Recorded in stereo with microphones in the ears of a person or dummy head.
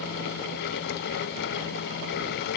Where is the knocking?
No knocking in this recording.